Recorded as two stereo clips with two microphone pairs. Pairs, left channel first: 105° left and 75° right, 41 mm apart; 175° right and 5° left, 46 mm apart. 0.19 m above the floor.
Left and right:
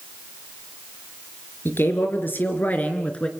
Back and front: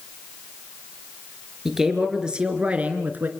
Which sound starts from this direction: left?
A man speaking, at 1.6 s.